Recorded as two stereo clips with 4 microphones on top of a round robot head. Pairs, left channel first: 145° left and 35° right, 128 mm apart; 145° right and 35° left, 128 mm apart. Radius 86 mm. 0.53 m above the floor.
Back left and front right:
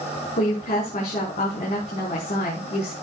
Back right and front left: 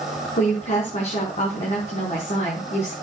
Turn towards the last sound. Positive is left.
turn(degrees=180)